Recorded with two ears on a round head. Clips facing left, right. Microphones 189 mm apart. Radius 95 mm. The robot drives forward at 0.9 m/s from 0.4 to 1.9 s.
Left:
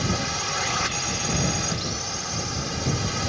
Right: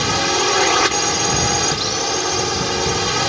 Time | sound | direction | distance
0.0 | a drone | 70° right (ahead or behind) | ?